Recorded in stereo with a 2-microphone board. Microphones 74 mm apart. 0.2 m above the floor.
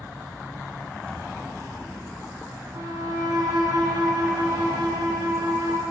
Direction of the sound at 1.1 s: 15° left (ahead or behind).